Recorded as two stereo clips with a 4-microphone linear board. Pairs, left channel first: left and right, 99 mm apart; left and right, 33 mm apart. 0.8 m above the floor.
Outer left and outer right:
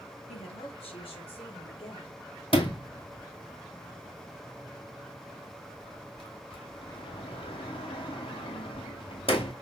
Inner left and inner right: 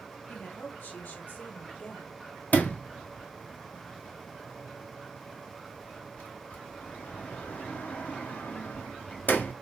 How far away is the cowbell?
No cowbell in this recording.